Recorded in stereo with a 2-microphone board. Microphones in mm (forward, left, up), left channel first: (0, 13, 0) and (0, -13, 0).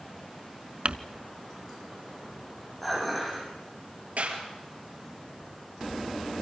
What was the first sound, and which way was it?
Crumpling, 55° right (ahead or behind).